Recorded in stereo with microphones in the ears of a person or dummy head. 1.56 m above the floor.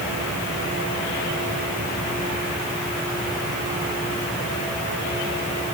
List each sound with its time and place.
Only background noise.